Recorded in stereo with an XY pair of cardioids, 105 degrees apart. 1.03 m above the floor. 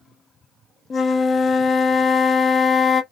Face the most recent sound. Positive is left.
turn(degrees=40)